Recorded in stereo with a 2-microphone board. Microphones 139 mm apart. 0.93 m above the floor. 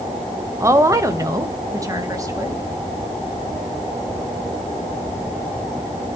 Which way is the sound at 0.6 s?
20° right (ahead or behind).